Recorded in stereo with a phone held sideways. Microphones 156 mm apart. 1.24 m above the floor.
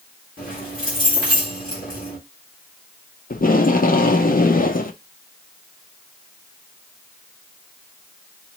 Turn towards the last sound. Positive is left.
turn(degrees=60)  # may be behind; listen again after turning